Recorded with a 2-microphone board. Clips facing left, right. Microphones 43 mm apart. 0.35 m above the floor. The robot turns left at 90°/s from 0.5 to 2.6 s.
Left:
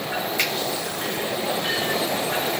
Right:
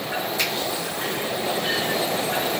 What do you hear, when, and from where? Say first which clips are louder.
0.4 s a finger snap: left 2 dB; 55° left (ahead or behind), 1.1 m